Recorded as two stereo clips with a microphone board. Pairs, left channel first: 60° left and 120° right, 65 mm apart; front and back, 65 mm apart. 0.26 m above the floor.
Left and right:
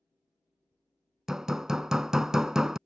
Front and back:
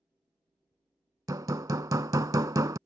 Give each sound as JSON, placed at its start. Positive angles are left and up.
{"t": 1.3, "sound": "hammering", "azimuth_deg": 160}